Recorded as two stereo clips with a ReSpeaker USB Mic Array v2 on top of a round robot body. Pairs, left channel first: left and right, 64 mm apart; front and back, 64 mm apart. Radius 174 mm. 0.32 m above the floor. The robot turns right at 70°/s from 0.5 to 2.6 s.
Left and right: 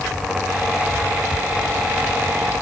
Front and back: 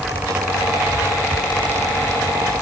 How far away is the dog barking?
No dog barking in this recording.